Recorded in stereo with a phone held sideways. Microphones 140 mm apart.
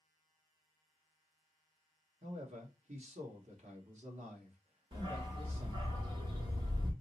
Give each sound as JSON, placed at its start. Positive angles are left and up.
{"t": 2.2, "sound": "a man speaking", "side_deg": -55, "distance_m": 1.3}
{"t": 4.9, "sound": "a dog barking", "side_deg": -35, "distance_m": 1.0}